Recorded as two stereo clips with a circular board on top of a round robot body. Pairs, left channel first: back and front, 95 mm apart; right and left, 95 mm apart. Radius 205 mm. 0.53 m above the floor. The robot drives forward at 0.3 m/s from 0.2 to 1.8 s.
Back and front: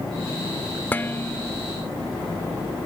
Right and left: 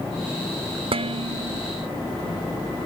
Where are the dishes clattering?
110° left; by 1.6 s 115° left.